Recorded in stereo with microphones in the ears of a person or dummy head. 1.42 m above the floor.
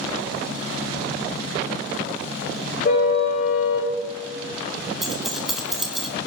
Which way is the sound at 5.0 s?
Centre (ahead or behind).